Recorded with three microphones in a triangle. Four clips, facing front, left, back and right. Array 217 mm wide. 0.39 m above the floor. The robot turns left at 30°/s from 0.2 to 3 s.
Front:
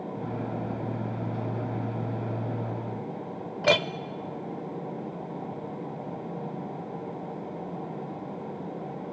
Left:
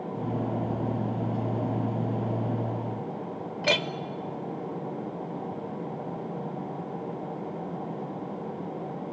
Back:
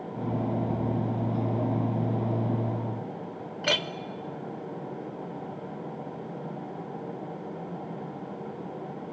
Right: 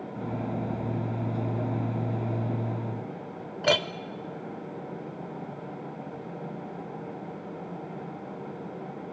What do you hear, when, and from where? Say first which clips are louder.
3.6 s a clink: right 3 dB, front 7 dB; 25° right, 0.8 m